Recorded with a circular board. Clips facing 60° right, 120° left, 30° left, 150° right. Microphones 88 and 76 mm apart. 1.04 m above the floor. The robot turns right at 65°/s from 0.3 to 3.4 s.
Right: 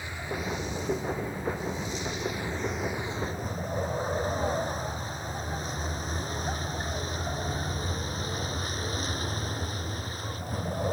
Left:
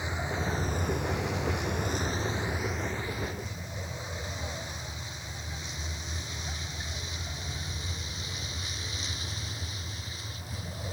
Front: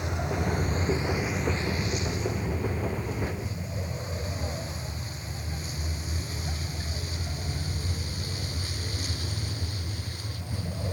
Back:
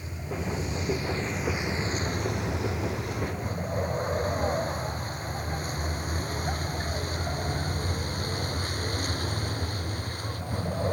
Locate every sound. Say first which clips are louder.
0.0 s a vehicle: left 1 dB, front 5 dB; 50° left; by 10.9 s 105° right